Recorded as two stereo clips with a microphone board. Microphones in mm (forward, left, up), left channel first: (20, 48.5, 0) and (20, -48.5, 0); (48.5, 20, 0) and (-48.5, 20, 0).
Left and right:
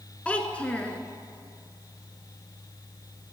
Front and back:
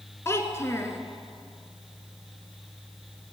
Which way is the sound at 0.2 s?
25° left.